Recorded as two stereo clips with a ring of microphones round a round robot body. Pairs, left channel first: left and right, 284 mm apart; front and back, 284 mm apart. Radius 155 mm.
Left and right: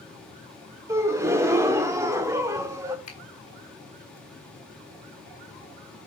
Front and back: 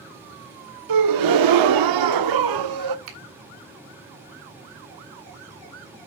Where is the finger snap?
155° left, 3 m.